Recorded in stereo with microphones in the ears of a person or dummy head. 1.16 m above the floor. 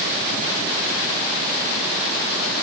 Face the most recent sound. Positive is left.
No sound to turn to.